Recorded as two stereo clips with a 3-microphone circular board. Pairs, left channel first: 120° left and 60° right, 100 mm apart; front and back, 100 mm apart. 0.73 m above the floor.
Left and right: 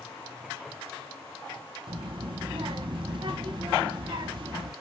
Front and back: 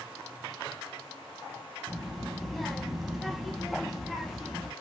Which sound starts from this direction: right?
A child speaking, at 1.9 s.